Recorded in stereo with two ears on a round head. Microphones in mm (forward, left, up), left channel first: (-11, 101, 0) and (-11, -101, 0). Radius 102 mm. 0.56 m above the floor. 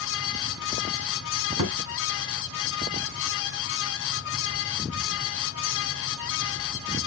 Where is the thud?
80° right, 3 m.